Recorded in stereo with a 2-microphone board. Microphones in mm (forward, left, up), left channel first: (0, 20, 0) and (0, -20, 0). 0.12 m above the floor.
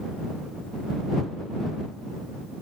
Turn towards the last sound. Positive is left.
No sound to turn to.